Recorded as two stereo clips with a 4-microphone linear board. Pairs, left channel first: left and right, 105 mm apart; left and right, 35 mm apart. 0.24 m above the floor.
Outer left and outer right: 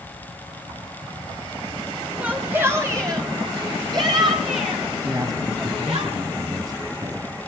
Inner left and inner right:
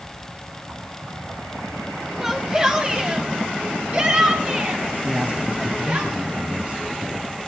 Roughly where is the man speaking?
Right.